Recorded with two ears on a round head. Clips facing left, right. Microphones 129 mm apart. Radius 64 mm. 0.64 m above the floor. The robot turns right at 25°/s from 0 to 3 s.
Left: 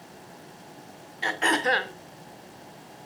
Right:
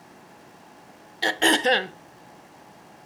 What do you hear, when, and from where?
1.2 s throat clearing: 40° right (ahead or behind), 0.6 m; by 1.9 s 25° right (ahead or behind), 0.6 m